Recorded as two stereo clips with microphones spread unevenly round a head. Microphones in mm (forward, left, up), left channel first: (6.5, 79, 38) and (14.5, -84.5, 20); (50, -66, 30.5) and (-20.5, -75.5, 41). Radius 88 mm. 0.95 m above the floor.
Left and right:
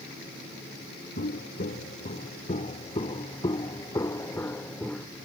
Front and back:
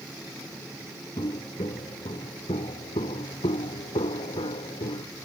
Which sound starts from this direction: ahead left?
Footsteps, at 1.2 s.